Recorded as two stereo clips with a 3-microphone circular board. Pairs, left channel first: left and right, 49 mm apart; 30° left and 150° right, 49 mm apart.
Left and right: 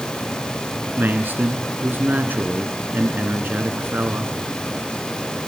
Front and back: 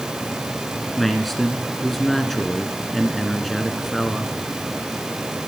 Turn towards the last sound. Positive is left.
turn(degrees=-55)